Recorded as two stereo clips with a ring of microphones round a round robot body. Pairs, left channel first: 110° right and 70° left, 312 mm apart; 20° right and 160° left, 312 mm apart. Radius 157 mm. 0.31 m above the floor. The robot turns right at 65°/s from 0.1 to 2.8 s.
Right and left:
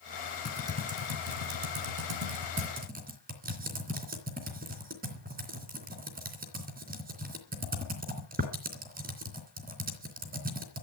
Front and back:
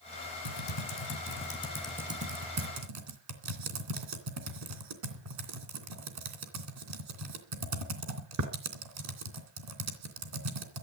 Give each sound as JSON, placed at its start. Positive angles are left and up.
{"t": 0.5, "sound": "typing on a keyboard", "azimuth_deg": -25, "distance_m": 3.0}